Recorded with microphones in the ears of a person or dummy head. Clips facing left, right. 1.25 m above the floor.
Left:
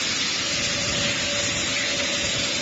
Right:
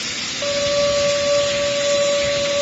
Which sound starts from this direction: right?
A violin, at 0.4 s.